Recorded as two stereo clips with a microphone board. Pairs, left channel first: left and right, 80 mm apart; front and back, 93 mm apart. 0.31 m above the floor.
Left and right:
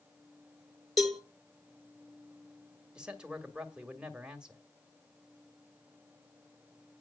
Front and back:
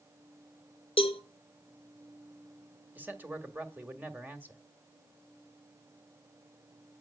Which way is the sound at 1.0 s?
Straight ahead.